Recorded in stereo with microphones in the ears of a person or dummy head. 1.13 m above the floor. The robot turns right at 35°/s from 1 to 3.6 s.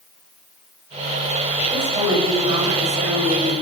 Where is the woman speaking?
170° right, 6 m; by 3.5 s 105° right, 6 m.